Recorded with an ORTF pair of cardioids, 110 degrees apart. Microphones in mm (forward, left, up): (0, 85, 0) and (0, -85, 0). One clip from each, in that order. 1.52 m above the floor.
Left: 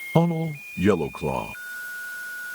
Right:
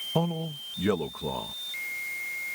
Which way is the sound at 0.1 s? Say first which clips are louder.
Left 9 dB; 40° left.